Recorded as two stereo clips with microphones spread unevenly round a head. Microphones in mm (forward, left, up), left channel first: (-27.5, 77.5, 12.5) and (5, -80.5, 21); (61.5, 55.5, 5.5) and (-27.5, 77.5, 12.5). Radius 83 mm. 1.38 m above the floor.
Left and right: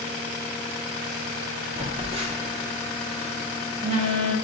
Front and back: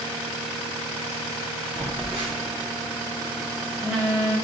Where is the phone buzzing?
120° right, 0.6 m.